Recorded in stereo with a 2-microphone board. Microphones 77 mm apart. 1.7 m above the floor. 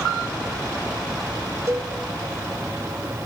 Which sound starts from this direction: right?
A cowbell, at 1.7 s.